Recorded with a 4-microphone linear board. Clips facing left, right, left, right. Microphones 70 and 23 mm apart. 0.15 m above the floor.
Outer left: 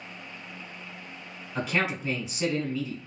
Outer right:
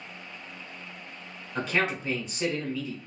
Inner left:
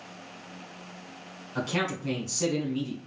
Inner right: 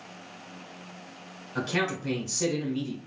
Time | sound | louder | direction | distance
1.6 | a man speaking | outer right 1 dB, inner right 1 dB | 5° left (ahead or behind) | 1.1 m